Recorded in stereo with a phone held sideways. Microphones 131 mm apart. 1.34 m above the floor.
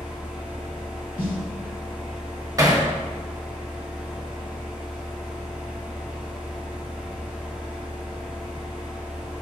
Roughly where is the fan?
Centre.